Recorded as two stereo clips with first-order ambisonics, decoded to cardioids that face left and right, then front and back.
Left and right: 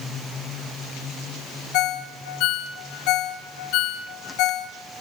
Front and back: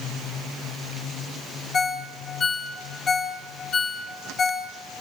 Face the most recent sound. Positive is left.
turn(degrees=65)